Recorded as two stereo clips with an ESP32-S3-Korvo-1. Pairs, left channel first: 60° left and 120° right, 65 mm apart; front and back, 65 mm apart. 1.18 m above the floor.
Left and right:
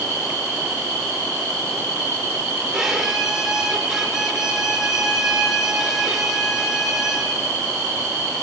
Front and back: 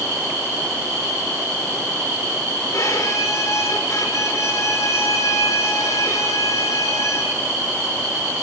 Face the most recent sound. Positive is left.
turn(degrees=-35)